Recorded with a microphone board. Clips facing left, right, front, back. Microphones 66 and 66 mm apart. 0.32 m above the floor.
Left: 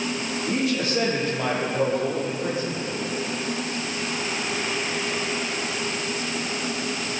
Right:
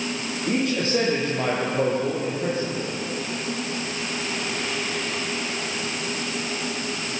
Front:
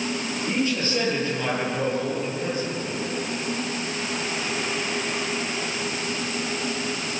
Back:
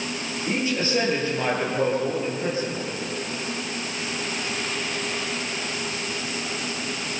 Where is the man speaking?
110° right, 8.5 m.